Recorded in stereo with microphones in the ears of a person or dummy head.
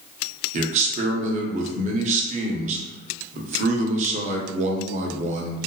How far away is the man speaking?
About 0.6 m.